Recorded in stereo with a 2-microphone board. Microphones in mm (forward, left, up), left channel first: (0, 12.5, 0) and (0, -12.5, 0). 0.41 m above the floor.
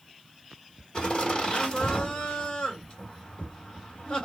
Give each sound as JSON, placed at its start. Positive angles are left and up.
{"t": 0.9, "sound": "laughter", "side_deg": 35, "distance_m": 1.6}